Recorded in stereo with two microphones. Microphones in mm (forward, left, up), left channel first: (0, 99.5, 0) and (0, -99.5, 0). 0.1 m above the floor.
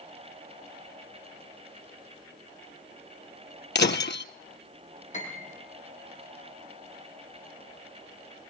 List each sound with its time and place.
3.8 s breaking glass: 60° left (ahead or behind), 0.9 m
5.1 s a piano: 35° left (ahead or behind), 4.5 m